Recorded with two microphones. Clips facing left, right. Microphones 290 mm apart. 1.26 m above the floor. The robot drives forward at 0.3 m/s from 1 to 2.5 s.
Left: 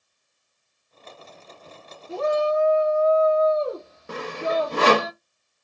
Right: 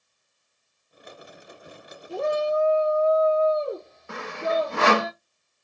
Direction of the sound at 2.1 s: 85° left.